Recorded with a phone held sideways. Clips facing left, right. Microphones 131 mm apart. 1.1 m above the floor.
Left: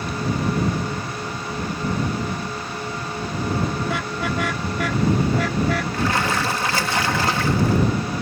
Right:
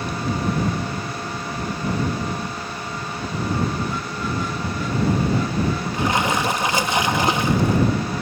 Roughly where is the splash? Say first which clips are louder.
Right 1 dB; right.